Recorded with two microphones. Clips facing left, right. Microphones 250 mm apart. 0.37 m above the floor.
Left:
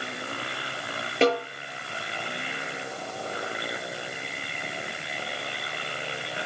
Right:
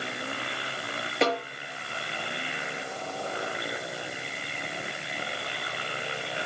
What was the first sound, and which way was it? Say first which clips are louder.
A snare drum: left 5 dB; 30° left (ahead or behind).